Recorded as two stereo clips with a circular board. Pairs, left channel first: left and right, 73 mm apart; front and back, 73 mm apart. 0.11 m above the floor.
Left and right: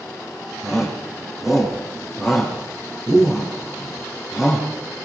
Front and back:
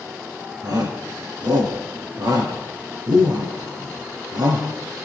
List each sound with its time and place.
0.6 s a shout: 175° right, 5 m